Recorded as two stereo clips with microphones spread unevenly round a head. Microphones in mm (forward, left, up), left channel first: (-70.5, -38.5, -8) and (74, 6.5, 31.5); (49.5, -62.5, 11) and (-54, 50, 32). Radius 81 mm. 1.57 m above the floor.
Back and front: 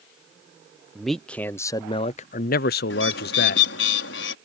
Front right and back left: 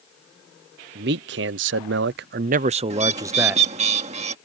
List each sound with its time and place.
0.9 s a man speaking: 110° left; by 3.7 s 145° right
2.9 s a bird: straight behind